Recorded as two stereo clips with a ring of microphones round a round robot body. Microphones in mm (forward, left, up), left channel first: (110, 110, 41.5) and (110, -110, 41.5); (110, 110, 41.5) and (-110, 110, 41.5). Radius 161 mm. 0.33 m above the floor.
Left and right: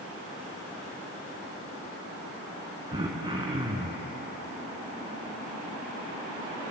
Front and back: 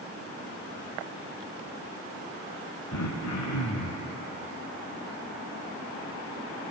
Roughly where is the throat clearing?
Ahead.